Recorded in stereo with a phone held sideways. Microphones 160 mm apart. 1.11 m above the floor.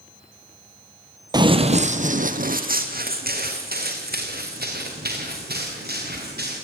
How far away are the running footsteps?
About 1.2 m.